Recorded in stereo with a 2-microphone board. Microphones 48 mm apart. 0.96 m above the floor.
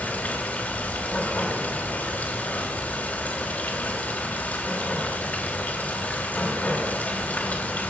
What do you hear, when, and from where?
0.0 s running water: 35° left (ahead or behind), 3 m